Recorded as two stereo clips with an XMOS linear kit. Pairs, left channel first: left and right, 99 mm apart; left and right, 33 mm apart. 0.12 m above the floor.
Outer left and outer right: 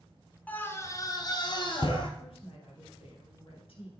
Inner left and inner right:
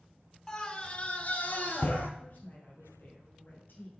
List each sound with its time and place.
0.5 s a scream: 15° left (ahead or behind), 1.0 m; by 2.1 s 55° left (ahead or behind), 2 m
2.2 s a woman speaking: 65° left (ahead or behind), 3.5 m